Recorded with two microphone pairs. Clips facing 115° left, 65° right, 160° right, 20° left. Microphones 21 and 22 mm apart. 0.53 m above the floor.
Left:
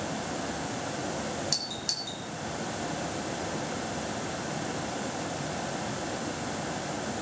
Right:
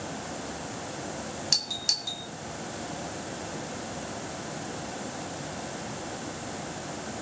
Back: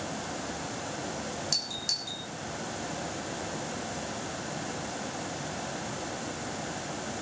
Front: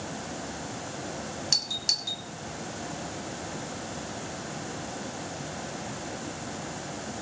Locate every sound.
1.5 s a doorbell: 25° right, 2 m